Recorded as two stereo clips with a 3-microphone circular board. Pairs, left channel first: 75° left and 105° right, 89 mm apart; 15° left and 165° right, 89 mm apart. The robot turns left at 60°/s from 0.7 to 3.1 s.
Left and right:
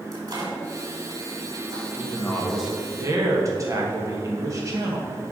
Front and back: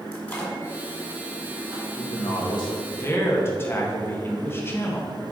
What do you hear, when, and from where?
0.1 s a microwave: 55° right, 2 m; by 1.9 s 120° right, 2 m
2.0 s a man speaking: 20° left, 1.9 m; by 5.1 s 50° right, 1.9 m